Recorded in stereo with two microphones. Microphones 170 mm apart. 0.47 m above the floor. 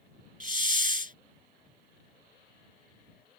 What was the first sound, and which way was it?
A hiss, 50° right (ahead or behind).